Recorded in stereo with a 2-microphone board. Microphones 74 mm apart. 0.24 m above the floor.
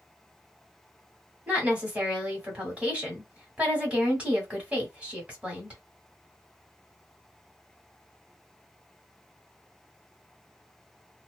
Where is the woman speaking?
20° right (ahead or behind), 1.4 m.